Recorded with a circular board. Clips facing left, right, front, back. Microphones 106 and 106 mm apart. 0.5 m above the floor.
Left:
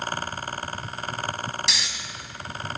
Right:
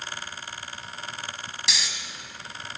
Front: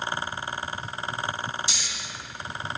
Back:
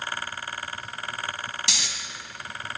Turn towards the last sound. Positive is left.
turn(degrees=180)